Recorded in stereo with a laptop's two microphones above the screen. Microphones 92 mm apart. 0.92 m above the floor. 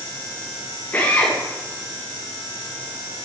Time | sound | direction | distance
0.9 | a drill | 15° left (ahead or behind) | 9 m